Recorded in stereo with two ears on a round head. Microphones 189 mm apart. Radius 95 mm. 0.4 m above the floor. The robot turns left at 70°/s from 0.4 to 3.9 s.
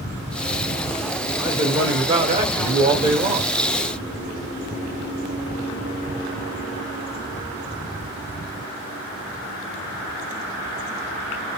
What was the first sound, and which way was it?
A man speaking, 5° right.